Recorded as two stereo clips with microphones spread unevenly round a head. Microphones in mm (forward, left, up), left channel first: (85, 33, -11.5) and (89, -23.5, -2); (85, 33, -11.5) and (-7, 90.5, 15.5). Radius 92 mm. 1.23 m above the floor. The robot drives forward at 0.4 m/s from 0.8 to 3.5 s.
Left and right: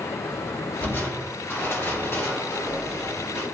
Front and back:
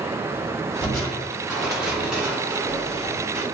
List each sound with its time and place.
0.8 s crushing: 45° left, 2.0 m; by 3.4 s 80° left, 1.5 m